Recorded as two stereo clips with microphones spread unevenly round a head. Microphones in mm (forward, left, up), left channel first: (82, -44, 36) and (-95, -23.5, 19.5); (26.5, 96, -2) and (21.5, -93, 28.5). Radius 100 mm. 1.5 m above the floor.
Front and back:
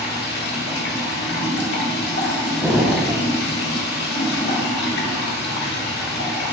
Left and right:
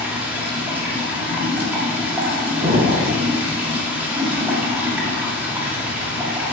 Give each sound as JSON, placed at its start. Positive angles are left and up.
{"t": 0.0, "sound": "running water", "azimuth_deg": -15, "distance_m": 1.6}
{"t": 2.6, "sound": "an explosion", "azimuth_deg": -100, "distance_m": 1.2}